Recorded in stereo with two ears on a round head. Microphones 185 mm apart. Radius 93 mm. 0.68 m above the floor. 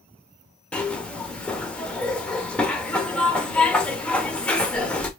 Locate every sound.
0.7 s a zipper: 5° left (ahead or behind), 0.8 m